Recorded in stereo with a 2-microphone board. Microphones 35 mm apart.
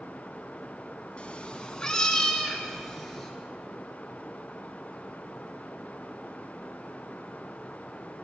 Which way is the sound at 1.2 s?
40° left (ahead or behind).